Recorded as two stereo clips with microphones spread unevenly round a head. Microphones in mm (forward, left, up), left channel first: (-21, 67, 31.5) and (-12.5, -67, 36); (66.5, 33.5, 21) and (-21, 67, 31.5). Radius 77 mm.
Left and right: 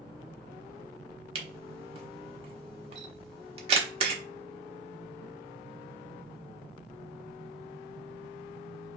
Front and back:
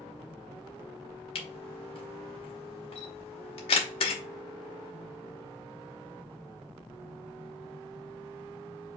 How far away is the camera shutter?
About 1.0 m.